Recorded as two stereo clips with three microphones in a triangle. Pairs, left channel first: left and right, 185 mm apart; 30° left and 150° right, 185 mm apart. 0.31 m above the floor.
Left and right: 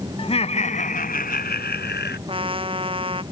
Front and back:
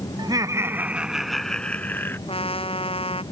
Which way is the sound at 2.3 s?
30° right.